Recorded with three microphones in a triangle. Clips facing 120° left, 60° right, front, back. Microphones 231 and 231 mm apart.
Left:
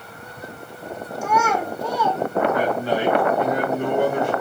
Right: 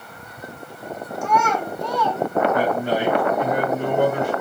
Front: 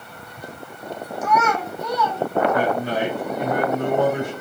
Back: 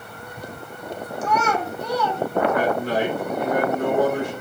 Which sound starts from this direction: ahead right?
A man speaking, at 2.5 s.